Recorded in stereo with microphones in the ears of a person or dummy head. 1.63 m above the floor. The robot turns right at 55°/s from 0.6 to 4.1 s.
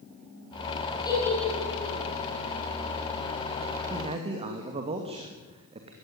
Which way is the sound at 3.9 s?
20° right (ahead or behind).